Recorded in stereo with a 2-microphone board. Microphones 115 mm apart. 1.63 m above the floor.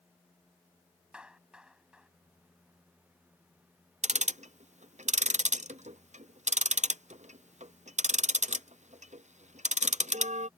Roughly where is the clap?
Centre.